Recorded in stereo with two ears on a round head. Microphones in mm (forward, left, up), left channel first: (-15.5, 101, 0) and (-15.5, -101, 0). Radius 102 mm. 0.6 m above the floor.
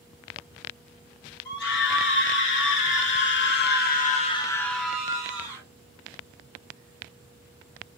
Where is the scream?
55° left (ahead or behind), 3 m; by 5.6 s 20° right (ahead or behind), 1.5 m.